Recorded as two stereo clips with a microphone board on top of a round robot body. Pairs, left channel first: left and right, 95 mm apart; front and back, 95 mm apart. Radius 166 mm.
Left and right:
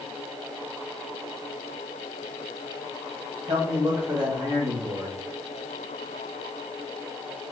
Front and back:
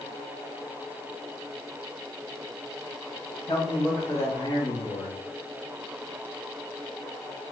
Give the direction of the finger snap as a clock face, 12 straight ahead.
I don't hear a finger snap.